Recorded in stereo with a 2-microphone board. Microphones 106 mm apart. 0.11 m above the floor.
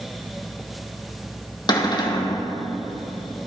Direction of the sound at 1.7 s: 40° left (ahead or behind).